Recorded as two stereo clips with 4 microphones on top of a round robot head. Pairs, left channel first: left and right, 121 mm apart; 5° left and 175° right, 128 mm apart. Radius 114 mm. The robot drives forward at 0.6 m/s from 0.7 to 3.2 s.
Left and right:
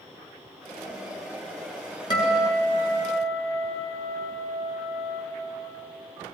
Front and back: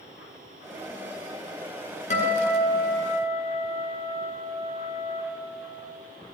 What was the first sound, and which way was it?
A guitar, 35° left.